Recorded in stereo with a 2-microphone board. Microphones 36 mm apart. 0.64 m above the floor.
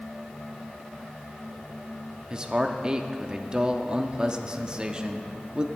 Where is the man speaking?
25° right (ahead or behind), 0.8 m.